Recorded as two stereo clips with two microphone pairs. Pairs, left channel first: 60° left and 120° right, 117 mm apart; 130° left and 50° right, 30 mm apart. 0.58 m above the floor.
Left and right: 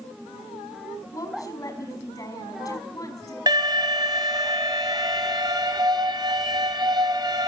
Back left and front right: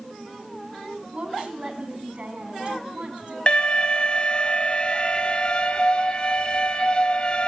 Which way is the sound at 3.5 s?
170° right.